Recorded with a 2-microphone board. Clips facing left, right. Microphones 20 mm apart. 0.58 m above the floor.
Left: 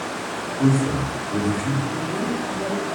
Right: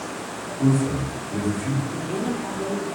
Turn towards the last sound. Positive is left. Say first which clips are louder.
# left 2 dB
turn(degrees=-35)  # may be behind; listen again after turning